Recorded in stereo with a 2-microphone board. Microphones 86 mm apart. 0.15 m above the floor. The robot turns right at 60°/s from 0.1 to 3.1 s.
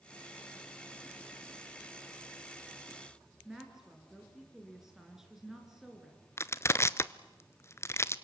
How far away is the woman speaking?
About 2.5 m.